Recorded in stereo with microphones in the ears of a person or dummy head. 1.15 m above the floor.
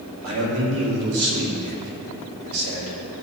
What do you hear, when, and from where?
0.2 s a man speaking: 85° right, 2.5 m